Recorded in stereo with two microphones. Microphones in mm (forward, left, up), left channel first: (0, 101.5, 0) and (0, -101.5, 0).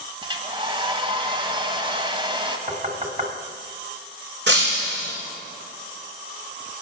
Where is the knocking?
35° right (ahead or behind), 1.8 m.